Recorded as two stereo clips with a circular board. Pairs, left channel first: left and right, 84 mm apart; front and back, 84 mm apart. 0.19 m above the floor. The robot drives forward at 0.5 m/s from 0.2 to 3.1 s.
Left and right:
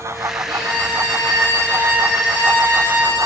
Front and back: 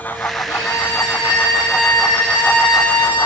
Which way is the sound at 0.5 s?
10° right.